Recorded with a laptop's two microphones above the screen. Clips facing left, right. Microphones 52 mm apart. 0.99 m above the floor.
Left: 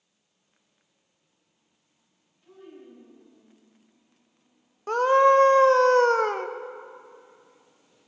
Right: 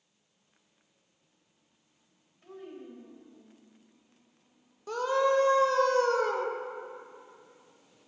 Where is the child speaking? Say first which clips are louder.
Right 2 dB; 65° right (ahead or behind), 2.5 m; by 3.4 s 45° right (ahead or behind), 3 m.